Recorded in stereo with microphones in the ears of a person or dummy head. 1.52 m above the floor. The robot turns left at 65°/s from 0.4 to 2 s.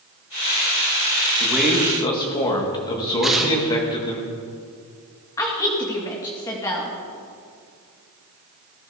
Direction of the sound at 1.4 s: 160° right.